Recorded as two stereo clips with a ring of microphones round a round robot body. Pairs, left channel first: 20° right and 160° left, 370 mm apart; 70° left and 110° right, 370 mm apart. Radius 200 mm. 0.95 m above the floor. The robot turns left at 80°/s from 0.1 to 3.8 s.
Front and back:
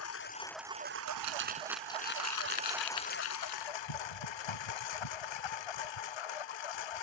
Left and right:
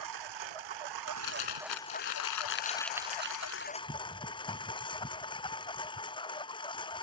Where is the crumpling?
125° left; by 3.7 s 90° right.